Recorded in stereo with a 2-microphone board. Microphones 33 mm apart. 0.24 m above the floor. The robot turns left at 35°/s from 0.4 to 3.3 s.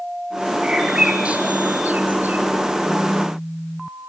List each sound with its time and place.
0.6 s a bird: 20° right (ahead or behind), 5 m; by 2.4 s 70° right (ahead or behind), 5 m